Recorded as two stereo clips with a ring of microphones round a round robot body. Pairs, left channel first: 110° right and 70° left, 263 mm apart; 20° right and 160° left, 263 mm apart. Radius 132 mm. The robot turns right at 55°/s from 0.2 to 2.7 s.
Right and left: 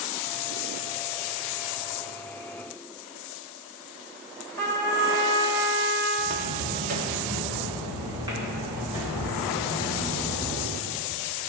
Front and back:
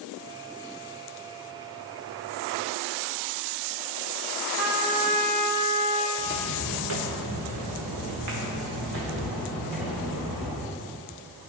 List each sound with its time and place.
4.6 s a trumpet: straight behind, 1.7 m
6.2 s footsteps: 105° left, 1.6 m; by 10.7 s 155° left, 5 m